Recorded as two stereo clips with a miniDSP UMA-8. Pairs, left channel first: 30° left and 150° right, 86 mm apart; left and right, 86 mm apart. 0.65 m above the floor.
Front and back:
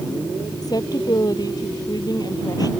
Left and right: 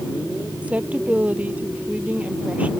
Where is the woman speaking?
15° right.